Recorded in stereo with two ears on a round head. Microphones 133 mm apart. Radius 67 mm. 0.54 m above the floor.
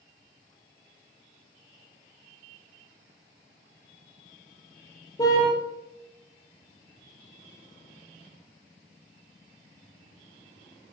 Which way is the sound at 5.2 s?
25° left (ahead or behind).